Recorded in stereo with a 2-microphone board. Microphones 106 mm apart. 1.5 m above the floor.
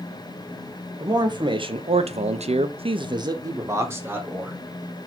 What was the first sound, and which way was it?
A man speaking, 40° right (ahead or behind).